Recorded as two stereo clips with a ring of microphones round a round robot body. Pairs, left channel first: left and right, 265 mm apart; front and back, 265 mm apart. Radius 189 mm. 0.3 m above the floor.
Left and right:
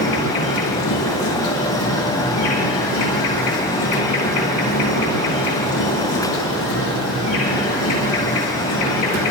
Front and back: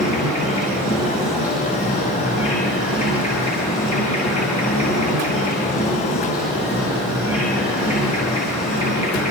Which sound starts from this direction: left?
An insect, at 0.0 s.